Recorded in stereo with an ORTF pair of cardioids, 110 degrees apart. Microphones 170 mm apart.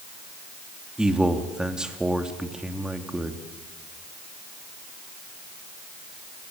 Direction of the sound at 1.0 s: 5° right.